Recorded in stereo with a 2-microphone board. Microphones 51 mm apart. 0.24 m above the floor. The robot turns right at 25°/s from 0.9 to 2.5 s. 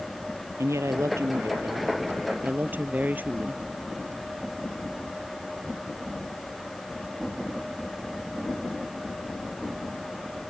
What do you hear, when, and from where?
0.6 s a woman speaking: 80° right; by 3.6 s 40° right